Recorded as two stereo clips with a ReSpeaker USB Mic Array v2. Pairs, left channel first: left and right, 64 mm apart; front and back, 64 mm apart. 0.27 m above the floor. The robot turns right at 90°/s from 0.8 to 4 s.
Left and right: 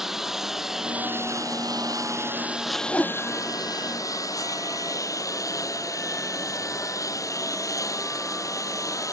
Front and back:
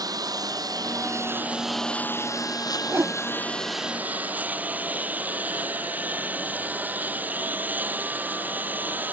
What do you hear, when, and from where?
0.0 s a lawn mower: 175° right; by 9.2 s 120° left
2.9 s a whoosh: 150° left; by 3.1 s 175° left